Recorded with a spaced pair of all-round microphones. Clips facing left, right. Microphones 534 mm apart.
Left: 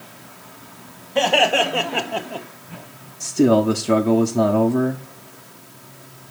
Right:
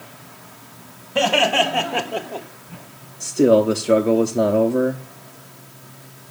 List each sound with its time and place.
1.1 s laughter: 30° right (ahead or behind), 1.5 m; by 2.5 s 40° left (ahead or behind), 0.8 m
3.2 s a man speaking: 20° left (ahead or behind), 0.6 m